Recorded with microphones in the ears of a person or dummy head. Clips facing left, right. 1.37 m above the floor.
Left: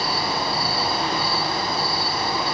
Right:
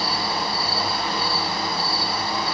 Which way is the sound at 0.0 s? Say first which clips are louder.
Left 1 dB; 50° left (ahead or behind).